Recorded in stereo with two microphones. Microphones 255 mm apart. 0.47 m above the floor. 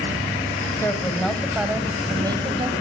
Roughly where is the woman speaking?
Centre.